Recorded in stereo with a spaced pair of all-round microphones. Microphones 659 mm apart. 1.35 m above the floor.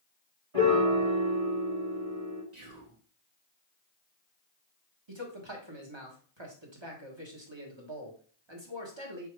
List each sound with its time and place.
0.5 s a piano: 60° right (ahead or behind), 2 m
2.5 s whispering: 80° right, 1.5 m
5.1 s a man speaking: 40° right (ahead or behind), 1.4 m